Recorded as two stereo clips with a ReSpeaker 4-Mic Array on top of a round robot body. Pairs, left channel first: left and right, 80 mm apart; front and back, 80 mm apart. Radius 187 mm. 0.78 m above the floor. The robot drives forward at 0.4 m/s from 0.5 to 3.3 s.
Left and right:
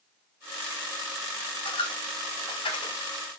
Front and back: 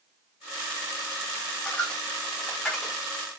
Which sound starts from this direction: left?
A dropped coin, at 1.6 s.